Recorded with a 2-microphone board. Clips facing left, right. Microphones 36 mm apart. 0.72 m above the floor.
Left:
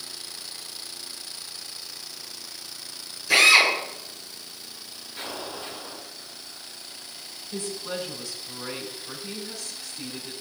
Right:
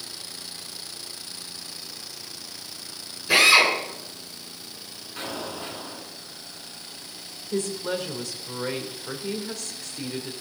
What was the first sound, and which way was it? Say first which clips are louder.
A drill: even; 25° right (ahead or behind).